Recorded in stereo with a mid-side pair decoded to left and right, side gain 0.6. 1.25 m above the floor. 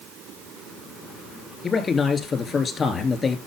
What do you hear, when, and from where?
1.6 s a man speaking: 35° left, 3 m